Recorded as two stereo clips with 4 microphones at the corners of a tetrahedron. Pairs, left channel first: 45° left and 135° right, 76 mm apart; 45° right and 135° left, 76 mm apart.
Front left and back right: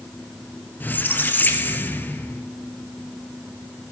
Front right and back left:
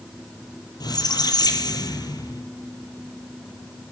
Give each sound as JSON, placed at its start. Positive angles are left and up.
{"t": 0.8, "sound": "a squeak", "azimuth_deg": -20, "distance_m": 1.1}